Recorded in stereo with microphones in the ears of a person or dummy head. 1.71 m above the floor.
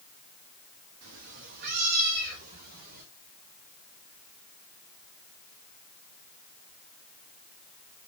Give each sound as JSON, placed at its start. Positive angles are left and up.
{"t": 1.0, "sound": "a cat meowing", "side_deg": -65, "distance_m": 2.5}